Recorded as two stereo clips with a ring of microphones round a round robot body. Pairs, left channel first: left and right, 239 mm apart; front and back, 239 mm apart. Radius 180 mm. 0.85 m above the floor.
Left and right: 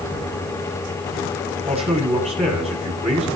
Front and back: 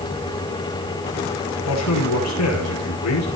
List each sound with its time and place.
1.7 s a man speaking: 25° right, 8.5 m